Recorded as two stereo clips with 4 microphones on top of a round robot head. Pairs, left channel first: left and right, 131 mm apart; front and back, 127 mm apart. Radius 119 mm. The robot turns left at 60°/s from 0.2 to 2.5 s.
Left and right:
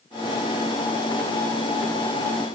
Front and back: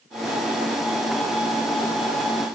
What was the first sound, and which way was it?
Only background noise.